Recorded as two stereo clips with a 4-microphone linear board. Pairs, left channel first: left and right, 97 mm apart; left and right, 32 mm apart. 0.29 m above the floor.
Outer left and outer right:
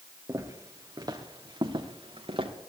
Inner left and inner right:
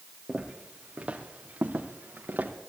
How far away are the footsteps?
About 3.5 m.